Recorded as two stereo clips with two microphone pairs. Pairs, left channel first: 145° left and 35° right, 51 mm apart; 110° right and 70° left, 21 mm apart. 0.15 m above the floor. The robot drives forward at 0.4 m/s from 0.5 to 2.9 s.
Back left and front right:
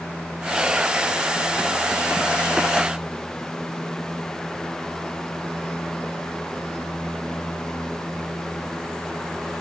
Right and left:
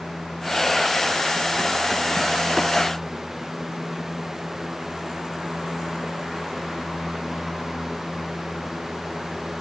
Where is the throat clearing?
I don't hear throat clearing.